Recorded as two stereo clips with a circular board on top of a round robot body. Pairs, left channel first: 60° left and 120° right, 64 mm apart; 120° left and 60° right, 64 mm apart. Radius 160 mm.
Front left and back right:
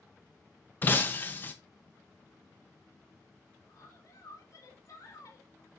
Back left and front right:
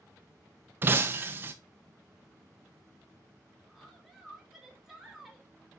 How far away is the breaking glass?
About 0.6 m.